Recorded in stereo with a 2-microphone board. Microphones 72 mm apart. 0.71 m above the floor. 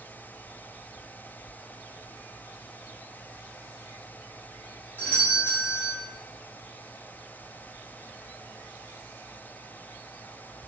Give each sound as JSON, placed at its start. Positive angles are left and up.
{"t": 5.0, "sound": "a doorbell", "side_deg": 25, "distance_m": 1.5}